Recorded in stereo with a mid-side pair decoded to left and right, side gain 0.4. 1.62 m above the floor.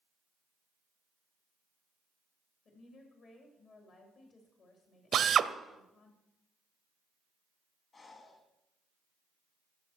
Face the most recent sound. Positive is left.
turn(degrees=50)